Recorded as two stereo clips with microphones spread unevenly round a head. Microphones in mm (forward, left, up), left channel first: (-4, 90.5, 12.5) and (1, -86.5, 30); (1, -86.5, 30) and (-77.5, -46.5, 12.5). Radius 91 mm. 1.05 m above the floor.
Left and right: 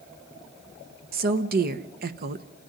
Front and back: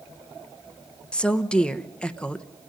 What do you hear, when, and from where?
1.1 s a woman speaking: 115° right, 1.1 m